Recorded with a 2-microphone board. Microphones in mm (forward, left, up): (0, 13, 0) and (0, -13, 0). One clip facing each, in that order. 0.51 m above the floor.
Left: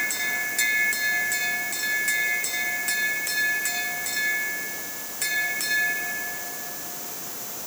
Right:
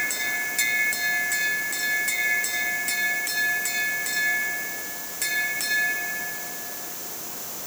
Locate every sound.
Only background noise.